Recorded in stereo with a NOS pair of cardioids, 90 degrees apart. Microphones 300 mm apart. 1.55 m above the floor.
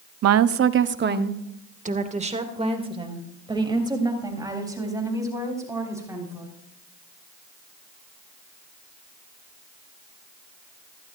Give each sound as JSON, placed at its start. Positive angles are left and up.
{"t": 0.2, "sound": "a woman speaking", "azimuth_deg": -65, "distance_m": 0.9}